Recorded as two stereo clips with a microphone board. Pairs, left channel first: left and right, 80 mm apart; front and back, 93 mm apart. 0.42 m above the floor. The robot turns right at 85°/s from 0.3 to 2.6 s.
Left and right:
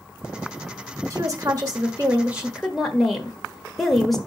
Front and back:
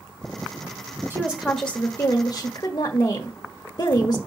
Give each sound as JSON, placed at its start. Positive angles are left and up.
{"t": 1.1, "sound": "a woman speaking", "azimuth_deg": -125, "distance_m": 1.2}